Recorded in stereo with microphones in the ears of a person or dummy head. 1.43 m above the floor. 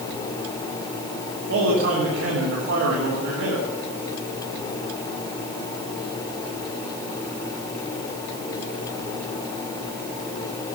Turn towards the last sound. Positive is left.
turn(degrees=-75)  # may be behind; listen again after turning